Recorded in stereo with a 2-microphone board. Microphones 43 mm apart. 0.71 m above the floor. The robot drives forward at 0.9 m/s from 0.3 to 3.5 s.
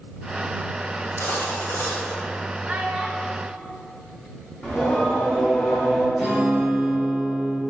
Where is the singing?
20° left (ahead or behind), 2.5 m.